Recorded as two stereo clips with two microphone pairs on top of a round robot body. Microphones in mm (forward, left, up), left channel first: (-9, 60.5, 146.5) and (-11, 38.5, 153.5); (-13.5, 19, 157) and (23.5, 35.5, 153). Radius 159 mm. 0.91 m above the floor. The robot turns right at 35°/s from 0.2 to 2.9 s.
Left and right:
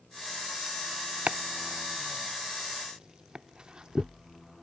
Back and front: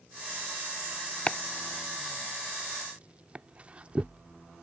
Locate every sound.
1.3 s chopping: 100° right; by 4.6 s 40° right